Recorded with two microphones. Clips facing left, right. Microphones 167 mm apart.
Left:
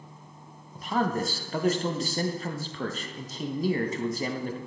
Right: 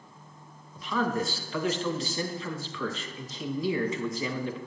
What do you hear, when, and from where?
0.8 s a man speaking: 45° left (ahead or behind), 1.3 m